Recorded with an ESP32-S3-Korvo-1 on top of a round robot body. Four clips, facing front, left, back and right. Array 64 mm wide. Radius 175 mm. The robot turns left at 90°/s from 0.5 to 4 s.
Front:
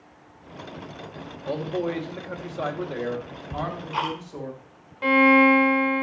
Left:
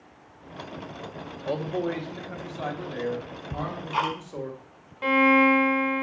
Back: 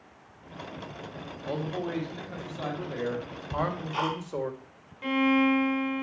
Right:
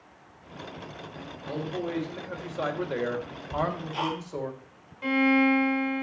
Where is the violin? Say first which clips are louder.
Left 3 dB, front 8 dB; 40° left, 1.3 m.